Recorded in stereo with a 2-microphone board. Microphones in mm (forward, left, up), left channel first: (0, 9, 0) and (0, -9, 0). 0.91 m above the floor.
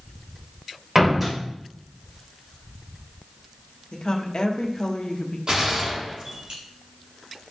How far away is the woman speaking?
About 1.2 m.